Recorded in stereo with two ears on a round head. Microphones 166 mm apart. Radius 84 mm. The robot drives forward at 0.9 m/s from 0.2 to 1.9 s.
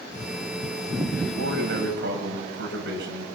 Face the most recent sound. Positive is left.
turn(degrees=-70)  # may be behind; listen again after turning